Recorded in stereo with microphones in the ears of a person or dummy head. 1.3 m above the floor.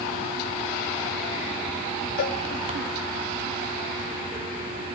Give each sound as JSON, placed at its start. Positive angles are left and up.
{"t": 2.2, "sound": "a cowbell", "side_deg": 40, "distance_m": 0.9}